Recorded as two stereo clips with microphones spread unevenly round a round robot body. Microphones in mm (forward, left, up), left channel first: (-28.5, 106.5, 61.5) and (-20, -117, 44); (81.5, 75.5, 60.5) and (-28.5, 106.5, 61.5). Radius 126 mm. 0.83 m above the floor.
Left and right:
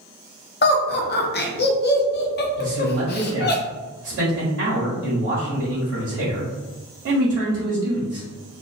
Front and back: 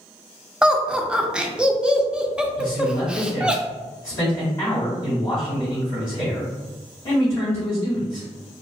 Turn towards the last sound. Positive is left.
turn(degrees=-70)